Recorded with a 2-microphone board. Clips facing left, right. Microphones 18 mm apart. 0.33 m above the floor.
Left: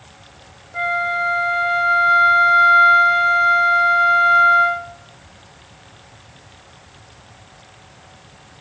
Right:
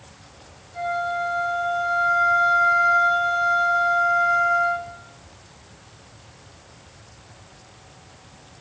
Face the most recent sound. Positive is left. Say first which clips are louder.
# left 5 dB
turn(degrees=75)  # may be behind; listen again after turning